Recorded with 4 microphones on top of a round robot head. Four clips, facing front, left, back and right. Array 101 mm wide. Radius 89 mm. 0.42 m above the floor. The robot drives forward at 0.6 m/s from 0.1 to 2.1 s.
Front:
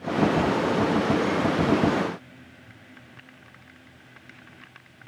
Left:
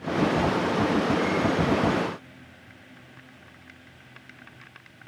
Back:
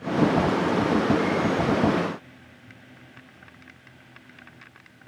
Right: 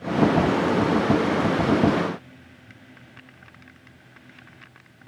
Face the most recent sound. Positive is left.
No sound to turn to.